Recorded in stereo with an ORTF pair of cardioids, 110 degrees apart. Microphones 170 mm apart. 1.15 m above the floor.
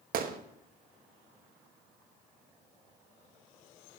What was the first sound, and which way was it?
A gunshot, 60° right.